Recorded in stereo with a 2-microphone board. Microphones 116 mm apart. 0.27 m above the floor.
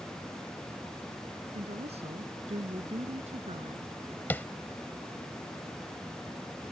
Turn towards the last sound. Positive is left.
turn(degrees=15)  # may be behind; listen again after turning